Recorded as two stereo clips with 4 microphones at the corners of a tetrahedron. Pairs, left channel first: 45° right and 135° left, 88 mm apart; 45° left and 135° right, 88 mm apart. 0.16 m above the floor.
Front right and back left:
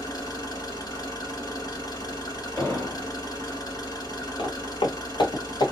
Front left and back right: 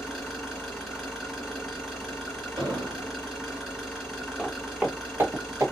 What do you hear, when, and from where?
0.0 s an engine running: 50° right, 1.8 m
2.6 s an explosion: 105° right, 2.5 m
4.4 s footsteps: 45° right, 1.2 m; by 5.7 s 80° right, 1.1 m